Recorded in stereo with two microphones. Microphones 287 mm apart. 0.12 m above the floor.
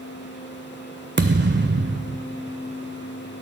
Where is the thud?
40° right (ahead or behind), 0.8 m.